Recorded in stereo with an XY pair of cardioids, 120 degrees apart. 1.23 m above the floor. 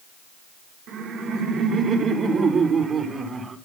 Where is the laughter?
70° right, 3.5 m; by 3.6 s 30° right, 4 m.